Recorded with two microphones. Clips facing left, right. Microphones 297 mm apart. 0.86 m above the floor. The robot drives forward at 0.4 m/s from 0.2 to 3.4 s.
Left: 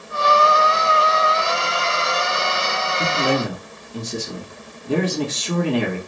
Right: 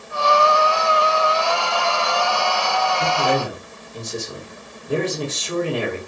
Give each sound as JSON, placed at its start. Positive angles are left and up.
{"t": 3.0, "sound": "a man speaking", "side_deg": 75, "distance_m": 1.9}